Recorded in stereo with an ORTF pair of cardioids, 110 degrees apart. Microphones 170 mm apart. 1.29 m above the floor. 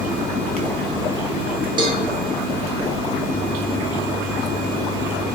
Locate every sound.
1.8 s a cowbell: 25° right, 1.0 m